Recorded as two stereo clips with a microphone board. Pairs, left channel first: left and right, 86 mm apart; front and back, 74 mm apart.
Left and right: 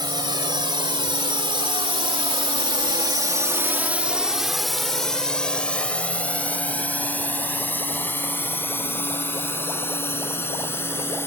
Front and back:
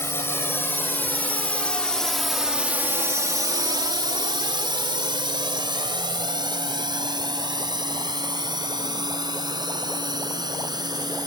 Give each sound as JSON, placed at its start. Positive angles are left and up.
{"t": 0.0, "sound": "a drone", "azimuth_deg": -55}